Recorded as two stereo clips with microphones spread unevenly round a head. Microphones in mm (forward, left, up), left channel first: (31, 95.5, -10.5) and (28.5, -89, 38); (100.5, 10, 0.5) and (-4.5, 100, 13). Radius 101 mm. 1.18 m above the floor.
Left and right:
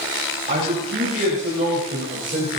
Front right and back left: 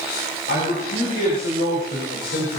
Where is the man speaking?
35° right, 6 m; by 2.6 s 40° right, 4.5 m.